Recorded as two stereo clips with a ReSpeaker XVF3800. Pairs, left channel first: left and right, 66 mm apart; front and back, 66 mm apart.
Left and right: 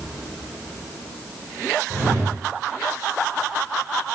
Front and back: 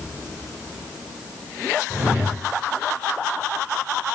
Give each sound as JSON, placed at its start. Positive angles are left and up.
{"t": 1.9, "sound": "a whoosh", "azimuth_deg": -115, "distance_m": 2.5}